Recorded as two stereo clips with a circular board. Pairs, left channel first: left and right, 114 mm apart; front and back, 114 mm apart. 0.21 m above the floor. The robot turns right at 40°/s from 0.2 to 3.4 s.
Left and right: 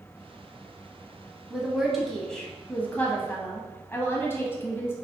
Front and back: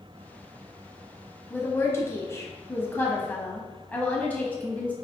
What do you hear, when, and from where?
1.5 s a woman speaking: 20° right, 1.1 m; by 4.9 s 55° left, 1.1 m